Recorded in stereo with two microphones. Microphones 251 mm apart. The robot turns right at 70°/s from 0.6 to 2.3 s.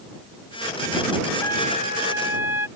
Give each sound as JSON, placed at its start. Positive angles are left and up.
{"t": 1.4, "sound": "a trumpet", "azimuth_deg": 15}